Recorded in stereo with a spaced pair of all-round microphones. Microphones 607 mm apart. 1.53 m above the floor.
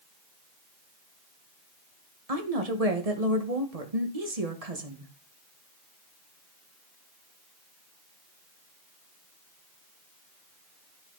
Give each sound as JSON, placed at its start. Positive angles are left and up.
{"t": 2.3, "sound": "a woman speaking", "side_deg": -70, "distance_m": 1.8}